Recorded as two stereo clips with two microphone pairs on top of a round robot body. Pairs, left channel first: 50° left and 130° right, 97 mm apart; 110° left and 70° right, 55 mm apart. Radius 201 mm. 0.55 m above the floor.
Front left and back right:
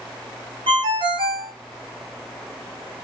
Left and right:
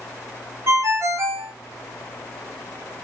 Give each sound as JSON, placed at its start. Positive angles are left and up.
{"t": 0.7, "sound": "a ringtone", "azimuth_deg": -100, "distance_m": 0.7}